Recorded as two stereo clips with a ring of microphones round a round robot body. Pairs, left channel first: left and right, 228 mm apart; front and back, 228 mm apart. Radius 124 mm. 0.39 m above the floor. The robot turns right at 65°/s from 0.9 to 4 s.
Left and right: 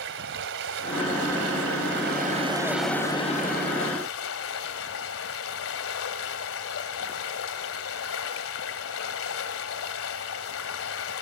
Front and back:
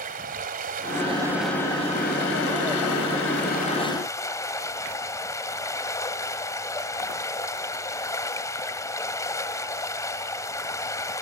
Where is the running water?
125° right, 1.9 m; by 11.2 s 75° left, 1.9 m.